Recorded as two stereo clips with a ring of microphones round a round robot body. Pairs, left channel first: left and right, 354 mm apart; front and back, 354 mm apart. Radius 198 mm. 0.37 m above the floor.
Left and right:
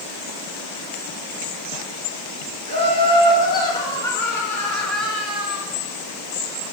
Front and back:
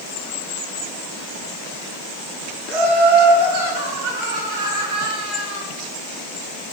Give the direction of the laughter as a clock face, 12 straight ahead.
7 o'clock.